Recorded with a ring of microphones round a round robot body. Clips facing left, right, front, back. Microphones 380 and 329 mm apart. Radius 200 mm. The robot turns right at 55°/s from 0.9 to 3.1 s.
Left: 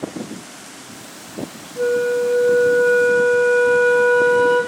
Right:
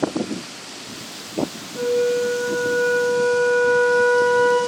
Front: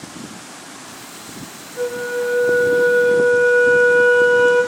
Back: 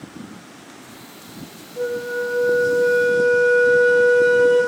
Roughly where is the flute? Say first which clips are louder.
Left 1 dB, front 2 dB; ahead right.